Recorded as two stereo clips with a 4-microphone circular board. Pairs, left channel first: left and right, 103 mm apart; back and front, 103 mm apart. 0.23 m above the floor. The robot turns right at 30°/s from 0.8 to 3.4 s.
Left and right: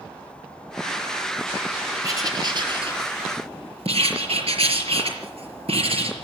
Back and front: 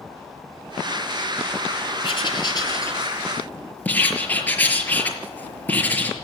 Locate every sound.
2.0 s writing: 145° right, 5 m; by 6.1 s 105° right, 5 m